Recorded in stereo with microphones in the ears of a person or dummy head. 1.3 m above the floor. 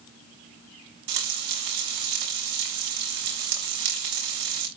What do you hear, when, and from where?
1.1 s frying: 60° right (ahead or behind), 6 m